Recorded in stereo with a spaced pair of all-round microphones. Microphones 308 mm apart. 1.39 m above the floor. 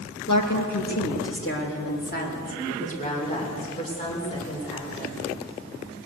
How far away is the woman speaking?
About 2.5 m.